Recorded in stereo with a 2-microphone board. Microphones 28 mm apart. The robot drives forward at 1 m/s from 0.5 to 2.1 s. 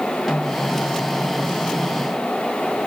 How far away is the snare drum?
About 4.5 m.